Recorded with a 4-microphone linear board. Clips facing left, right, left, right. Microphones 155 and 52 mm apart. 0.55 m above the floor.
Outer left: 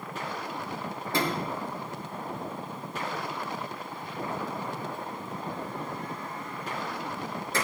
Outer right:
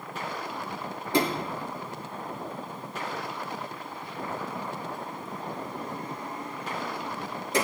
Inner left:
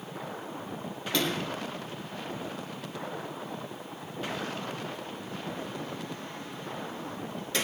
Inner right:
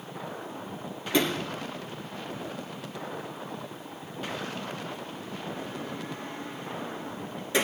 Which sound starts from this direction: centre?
A sliding door, at 1.1 s.